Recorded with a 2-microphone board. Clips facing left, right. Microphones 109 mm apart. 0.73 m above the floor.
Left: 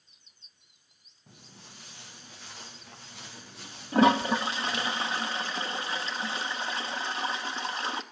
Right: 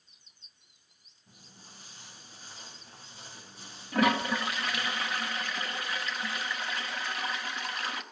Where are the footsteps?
75° left (ahead or behind), 5.5 m; by 4.9 s 80° left, 6.5 m.